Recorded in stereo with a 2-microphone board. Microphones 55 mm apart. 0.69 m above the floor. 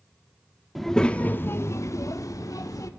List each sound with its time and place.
0.8 s a child speaking: centre (ahead or behind), 0.5 m; by 2.9 s 85° left, 1.0 m